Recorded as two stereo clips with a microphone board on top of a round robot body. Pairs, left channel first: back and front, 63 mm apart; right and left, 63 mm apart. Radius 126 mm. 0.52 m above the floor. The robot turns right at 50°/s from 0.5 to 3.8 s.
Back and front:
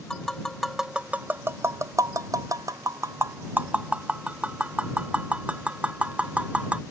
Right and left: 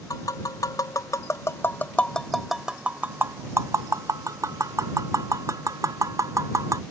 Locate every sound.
0.1 s tapping: 95° right; by 6.8 s 70° left